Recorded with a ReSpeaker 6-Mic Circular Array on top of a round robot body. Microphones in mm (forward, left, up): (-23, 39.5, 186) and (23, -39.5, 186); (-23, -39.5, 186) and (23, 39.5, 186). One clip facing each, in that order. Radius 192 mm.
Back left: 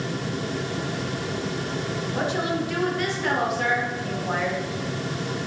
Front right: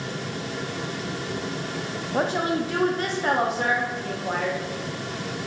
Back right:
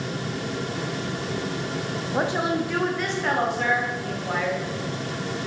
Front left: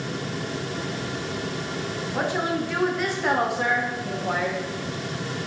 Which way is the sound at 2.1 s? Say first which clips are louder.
Front right 3 dB, back right 2 dB; 70° right.